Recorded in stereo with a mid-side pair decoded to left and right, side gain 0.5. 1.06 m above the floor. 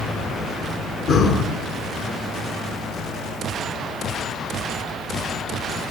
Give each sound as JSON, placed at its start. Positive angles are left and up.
{"t": 1.1, "sound": "breathing", "azimuth_deg": 65, "distance_m": 7.0}